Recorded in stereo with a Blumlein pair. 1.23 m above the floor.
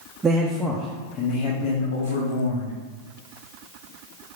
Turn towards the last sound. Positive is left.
turn(degrees=75)